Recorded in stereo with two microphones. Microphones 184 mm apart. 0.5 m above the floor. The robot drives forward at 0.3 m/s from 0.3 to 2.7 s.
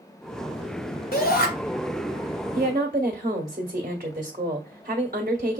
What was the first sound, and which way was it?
A shout, 55° left (ahead or behind).